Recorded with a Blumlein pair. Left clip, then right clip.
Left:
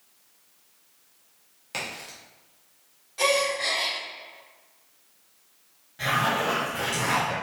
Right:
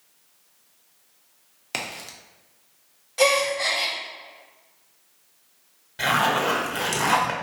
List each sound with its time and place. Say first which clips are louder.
1.7 s a crack: right 2 dB; 65° right, 0.9 m
3.2 s a gasp: right 3 dB; 70° right, 1.5 m
6.0 s a zipper: right 3 dB; 65° right, 1.1 m